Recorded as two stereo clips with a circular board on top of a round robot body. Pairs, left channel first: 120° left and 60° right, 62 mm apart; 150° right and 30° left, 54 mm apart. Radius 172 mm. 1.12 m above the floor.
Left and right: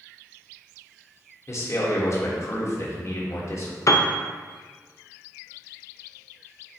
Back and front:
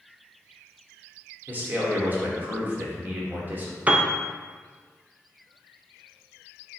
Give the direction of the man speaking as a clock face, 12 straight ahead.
9 o'clock.